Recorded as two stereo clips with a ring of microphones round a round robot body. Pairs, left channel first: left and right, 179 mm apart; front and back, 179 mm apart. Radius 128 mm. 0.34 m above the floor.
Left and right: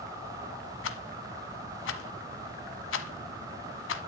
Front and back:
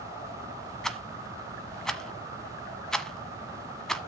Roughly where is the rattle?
Left.